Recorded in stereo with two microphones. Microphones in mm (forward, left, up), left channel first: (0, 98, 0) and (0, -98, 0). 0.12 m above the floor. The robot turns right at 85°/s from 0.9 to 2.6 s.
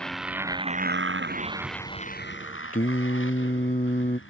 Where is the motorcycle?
5° left (ahead or behind); by 4.3 s 80° left.